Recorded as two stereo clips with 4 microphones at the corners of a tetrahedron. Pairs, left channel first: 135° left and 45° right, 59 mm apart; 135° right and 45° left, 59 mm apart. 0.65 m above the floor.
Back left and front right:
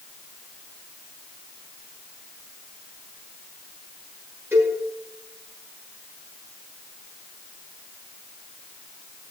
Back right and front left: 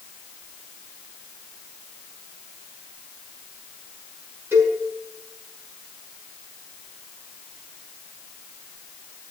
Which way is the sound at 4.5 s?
5° right.